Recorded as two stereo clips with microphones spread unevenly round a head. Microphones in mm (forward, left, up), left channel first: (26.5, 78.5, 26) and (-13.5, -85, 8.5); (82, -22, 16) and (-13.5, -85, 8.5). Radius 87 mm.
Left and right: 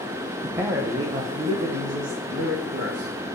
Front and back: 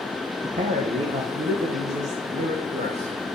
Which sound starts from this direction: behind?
A man speaking, at 0.4 s.